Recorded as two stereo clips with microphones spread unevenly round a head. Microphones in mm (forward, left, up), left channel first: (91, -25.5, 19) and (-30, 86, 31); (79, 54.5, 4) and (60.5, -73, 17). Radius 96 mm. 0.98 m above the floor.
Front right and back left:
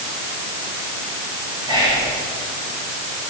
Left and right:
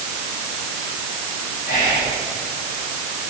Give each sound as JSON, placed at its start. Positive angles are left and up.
{"t": 1.6, "sound": "whispering", "azimuth_deg": 75, "distance_m": 7.0}